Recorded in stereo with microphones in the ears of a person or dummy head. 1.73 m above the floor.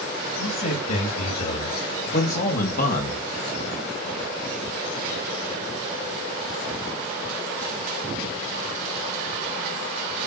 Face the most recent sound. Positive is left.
turn(degrees=50)  # may be behind; listen again after turning